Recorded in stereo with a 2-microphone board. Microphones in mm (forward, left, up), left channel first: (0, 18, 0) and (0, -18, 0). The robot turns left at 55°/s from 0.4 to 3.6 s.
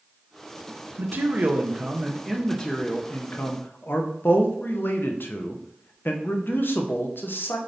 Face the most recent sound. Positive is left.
turn(degrees=105)